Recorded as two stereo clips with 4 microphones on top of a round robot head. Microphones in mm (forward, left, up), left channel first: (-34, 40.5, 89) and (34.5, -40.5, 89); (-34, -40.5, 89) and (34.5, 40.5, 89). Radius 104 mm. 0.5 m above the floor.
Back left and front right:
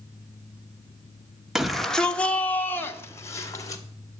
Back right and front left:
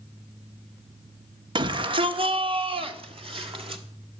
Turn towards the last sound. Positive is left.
turn(degrees=75)